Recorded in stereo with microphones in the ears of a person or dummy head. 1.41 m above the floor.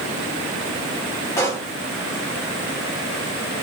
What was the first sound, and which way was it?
A pop, 15° left (ahead or behind).